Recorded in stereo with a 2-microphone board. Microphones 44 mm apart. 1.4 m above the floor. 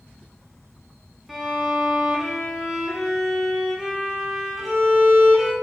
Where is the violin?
5° right (ahead or behind), 1.0 m.